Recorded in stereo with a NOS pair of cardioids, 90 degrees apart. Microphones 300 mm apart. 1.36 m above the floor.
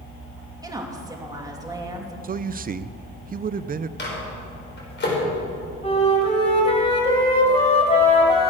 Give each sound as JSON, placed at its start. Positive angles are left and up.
{"t": 0.6, "sound": "a woman speaking", "azimuth_deg": -10, "distance_m": 2.5}
{"t": 2.2, "sound": "a man speaking", "azimuth_deg": -30, "distance_m": 0.5}
{"t": 4.0, "sound": "a microwave", "azimuth_deg": 40, "distance_m": 5.5}
{"t": 5.8, "sound": "a flute", "azimuth_deg": 20, "distance_m": 4.0}